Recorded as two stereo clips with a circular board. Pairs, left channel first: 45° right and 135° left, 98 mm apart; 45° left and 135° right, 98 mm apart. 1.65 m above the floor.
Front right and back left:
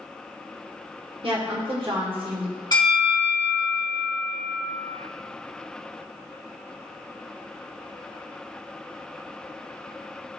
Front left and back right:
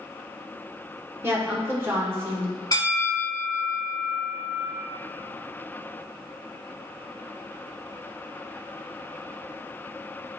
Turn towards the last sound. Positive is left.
turn(degrees=-5)